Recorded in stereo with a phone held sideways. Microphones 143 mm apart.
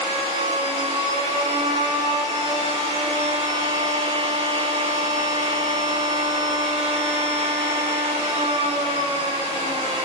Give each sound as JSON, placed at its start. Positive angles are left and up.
{"t": 0.0, "sound": "a machine running", "side_deg": -50, "distance_m": 3.0}